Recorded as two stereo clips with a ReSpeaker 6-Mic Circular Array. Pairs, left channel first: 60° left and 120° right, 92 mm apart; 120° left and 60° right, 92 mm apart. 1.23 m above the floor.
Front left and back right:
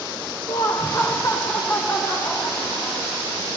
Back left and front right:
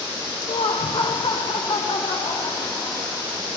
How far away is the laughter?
About 0.5 m.